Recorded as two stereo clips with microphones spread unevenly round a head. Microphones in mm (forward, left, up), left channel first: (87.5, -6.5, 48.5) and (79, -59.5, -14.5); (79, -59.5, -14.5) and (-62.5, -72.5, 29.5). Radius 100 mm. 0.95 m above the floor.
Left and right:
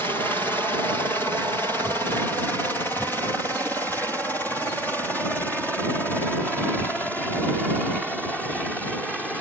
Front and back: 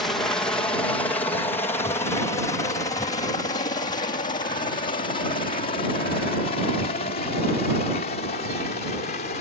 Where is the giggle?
No giggle in this recording.